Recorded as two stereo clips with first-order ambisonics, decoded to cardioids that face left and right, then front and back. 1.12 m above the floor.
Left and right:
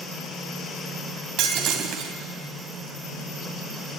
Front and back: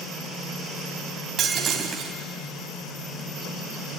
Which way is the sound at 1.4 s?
120° right.